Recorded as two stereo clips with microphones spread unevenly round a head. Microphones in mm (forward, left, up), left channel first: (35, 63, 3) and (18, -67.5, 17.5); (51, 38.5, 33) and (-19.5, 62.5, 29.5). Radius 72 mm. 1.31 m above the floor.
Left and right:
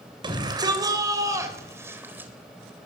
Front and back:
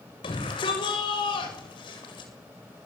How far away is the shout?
About 7.5 m.